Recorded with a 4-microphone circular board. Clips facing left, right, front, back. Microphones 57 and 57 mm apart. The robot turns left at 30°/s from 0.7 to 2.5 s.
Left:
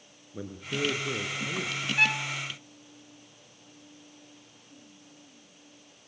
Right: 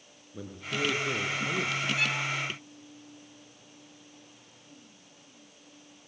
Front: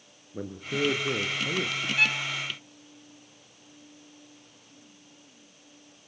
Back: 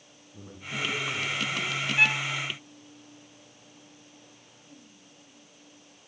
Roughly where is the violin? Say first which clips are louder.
Left 3 dB, back 2 dB; behind left.